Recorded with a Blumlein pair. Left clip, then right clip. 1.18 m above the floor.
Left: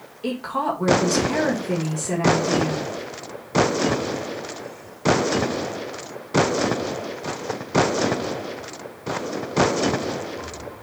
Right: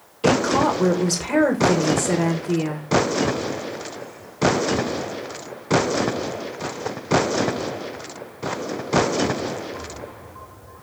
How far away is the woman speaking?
About 1.5 m.